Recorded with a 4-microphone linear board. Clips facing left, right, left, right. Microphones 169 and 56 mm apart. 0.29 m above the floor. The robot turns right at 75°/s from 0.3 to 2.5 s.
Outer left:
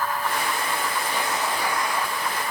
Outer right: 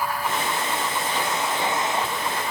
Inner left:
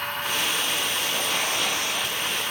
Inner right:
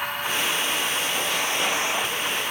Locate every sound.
Only background noise.